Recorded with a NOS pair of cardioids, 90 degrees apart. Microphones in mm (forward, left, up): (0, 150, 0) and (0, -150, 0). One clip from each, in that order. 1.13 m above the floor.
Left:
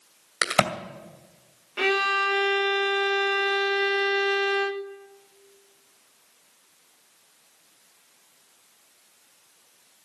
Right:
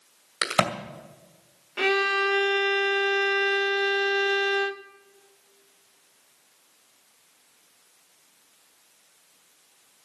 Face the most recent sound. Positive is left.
turn(degrees=-5)